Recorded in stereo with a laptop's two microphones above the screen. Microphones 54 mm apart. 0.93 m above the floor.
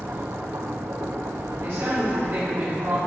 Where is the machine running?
70° right (ahead or behind), 0.9 m.